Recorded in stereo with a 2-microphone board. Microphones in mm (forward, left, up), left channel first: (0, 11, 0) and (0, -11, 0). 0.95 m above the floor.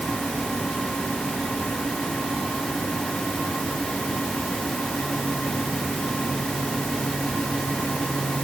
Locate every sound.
Only background noise.